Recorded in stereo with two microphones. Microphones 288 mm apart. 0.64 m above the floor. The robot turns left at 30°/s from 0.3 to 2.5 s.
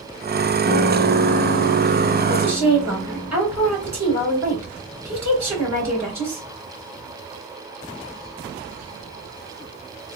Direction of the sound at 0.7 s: 45° right.